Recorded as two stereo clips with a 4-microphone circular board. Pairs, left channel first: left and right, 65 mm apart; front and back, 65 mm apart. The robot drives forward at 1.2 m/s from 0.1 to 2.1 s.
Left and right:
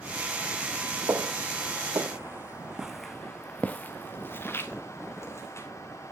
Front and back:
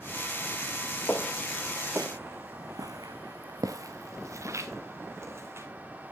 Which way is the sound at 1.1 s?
55° right.